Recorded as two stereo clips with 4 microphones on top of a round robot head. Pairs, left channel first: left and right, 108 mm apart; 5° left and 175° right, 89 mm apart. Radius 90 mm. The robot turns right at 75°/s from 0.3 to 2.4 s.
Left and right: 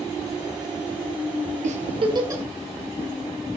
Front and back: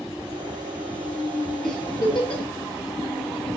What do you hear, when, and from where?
1.6 s a giggle: 80° right, 1.1 m; by 2.4 s 25° right, 1.1 m